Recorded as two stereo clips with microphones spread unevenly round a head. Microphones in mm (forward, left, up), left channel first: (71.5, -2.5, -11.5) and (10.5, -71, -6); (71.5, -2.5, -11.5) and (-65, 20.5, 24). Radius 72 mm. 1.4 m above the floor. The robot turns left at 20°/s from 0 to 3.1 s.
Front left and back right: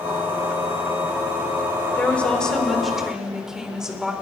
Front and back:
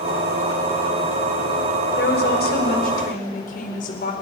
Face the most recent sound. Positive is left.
turn(degrees=-50)